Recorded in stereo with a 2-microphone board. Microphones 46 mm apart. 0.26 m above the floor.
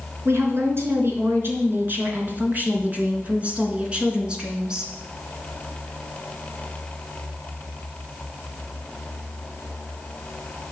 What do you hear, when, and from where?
0.2 s a woman speaking: 60° right (ahead or behind), 4 m; by 4.9 s 15° right (ahead or behind), 3.5 m